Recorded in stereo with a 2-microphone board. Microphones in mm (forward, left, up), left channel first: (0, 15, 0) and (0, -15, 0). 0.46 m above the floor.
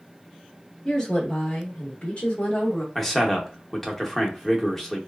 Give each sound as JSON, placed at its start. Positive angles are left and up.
{"t": 0.8, "sound": "a woman speaking", "side_deg": 15, "distance_m": 1.0}
{"t": 3.0, "sound": "a man speaking", "side_deg": 5, "distance_m": 0.7}